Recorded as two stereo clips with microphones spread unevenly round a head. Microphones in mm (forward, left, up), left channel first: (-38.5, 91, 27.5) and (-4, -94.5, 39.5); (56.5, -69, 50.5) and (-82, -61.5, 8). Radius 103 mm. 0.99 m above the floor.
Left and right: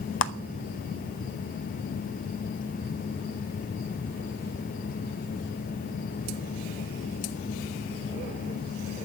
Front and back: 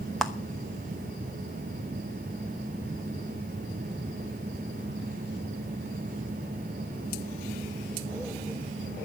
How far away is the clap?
About 0.9 m.